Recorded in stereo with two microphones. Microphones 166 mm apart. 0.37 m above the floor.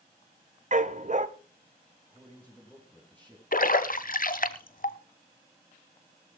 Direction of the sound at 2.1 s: 10° left (ahead or behind).